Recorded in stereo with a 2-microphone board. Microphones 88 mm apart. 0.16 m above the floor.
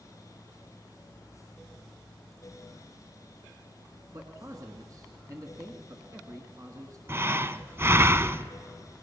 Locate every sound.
4.1 s a man speaking: 40° right (ahead or behind), 1.6 m
7.1 s breathing: 30° right (ahead or behind), 0.6 m